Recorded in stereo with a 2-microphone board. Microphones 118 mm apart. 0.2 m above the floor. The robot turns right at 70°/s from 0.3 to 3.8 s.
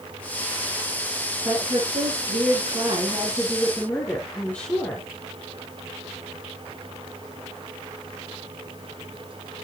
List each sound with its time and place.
1.4 s a woman speaking: 150° right, 3 m; by 5.1 s 15° left, 3 m